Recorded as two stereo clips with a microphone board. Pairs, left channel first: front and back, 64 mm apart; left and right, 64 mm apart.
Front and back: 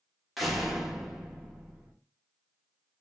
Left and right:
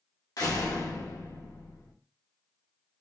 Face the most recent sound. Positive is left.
turn(degrees=90)